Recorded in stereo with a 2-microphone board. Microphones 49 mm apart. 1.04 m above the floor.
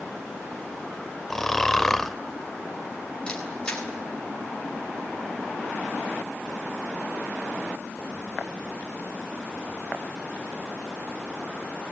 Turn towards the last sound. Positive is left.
turn(degrees=20)  # may be behind; listen again after turning